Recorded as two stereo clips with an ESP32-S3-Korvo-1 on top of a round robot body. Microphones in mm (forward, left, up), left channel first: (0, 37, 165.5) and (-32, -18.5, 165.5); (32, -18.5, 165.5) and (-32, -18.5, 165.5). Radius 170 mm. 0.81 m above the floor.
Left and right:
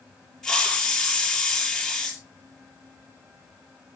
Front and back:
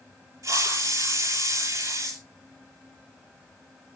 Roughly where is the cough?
No cough in this recording.